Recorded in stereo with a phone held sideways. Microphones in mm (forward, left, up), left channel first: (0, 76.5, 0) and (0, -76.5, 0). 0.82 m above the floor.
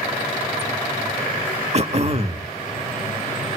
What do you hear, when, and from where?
1.7 s throat clearing: 45° right (ahead or behind), 0.8 m